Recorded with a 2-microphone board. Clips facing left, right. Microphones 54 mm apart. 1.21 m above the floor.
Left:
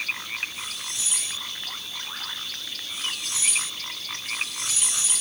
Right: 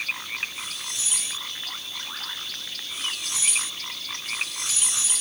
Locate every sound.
Only background noise.